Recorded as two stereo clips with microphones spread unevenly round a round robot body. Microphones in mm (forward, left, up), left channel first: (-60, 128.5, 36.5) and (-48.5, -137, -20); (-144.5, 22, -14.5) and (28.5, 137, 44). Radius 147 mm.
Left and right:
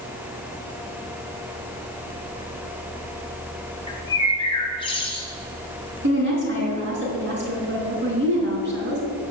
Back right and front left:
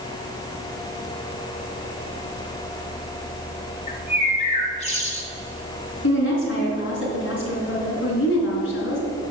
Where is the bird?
165° left, 1.9 m.